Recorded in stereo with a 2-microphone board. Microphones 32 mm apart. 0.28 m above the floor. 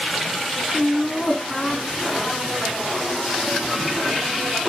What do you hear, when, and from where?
0.7 s laughter: 5° left (ahead or behind), 2 m; by 3.1 s 30° left (ahead or behind), 3.5 m